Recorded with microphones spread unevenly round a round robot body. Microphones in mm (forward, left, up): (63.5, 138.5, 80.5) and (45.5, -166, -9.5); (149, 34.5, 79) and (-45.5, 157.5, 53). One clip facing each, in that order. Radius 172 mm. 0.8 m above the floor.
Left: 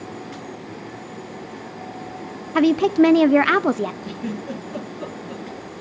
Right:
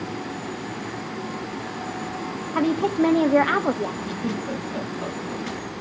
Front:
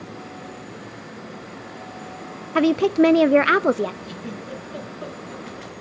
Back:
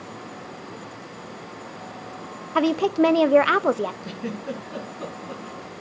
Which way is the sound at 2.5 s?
40° left.